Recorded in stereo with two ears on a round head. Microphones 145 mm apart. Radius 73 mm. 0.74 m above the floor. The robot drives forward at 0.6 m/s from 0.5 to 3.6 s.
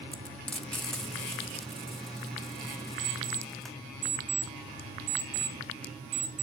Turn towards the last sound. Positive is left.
turn(degrees=-50)  # may be behind; listen again after turning